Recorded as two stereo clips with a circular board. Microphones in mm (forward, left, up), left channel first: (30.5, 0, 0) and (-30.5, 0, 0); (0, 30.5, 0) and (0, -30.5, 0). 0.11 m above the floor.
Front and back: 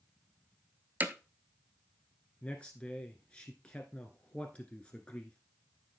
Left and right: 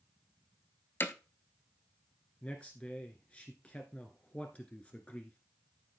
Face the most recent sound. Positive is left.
turn(degrees=50)